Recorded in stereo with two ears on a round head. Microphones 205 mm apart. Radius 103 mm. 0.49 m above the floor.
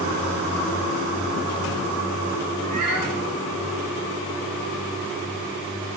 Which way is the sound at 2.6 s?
75° right (ahead or behind).